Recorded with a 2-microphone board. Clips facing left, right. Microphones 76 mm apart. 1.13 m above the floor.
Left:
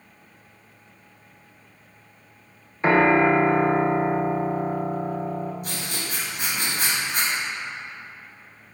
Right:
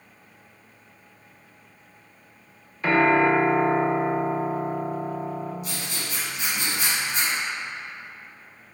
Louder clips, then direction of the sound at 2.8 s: Left 2 dB; 30° left (ahead or behind).